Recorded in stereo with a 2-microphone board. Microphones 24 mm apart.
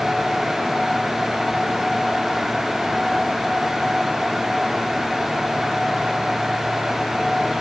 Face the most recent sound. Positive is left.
No sound to turn to.